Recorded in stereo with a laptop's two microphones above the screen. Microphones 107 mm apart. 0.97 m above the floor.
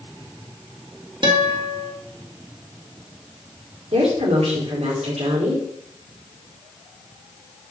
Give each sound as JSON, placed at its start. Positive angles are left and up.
{"t": 1.2, "sound": "a guitar", "side_deg": -50, "distance_m": 1.7}
{"t": 3.9, "sound": "a woman speaking", "side_deg": -75, "distance_m": 2.5}